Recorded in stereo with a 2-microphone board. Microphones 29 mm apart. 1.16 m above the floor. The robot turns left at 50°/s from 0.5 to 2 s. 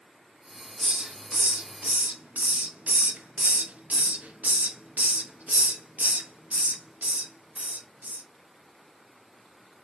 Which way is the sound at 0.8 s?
25° right (ahead or behind).